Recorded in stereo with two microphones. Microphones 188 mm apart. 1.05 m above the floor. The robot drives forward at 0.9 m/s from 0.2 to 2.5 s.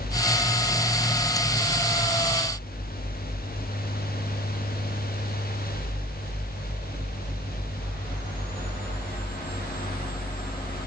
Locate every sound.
Only background noise.